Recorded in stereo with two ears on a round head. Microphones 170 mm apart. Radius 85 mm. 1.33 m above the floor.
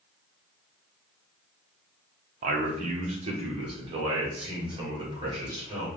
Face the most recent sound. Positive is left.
turn(degrees=-25)  # may be behind; listen again after turning